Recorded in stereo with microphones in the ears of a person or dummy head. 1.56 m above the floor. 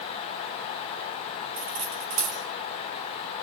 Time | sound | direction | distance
1.6 | cutlery clinking | 50° right (ahead or behind) | 3.5 m